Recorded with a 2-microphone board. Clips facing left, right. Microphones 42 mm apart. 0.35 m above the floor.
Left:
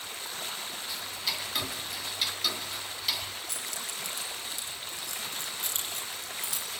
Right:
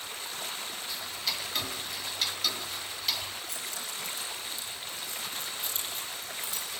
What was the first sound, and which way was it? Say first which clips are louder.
Ticking: left 1 dB; 5° left (ahead or behind).